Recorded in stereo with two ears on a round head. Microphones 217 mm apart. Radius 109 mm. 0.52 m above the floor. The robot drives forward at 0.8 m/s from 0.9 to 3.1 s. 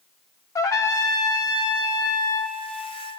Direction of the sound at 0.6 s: 15° left (ahead or behind).